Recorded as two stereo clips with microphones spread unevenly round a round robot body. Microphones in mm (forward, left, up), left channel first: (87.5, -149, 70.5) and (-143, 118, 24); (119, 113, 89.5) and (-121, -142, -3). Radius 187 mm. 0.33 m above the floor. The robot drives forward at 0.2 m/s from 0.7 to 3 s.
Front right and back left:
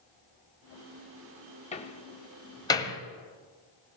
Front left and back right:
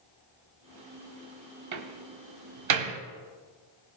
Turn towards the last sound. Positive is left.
turn(degrees=-135)